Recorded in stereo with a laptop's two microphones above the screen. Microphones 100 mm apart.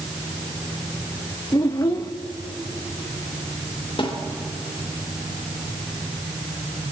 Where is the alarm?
I don't hear an alarm.